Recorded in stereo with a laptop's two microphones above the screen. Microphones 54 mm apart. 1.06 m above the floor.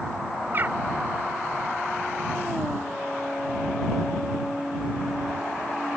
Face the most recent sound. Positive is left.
turn(degrees=-40)  # may be behind; listen again after turning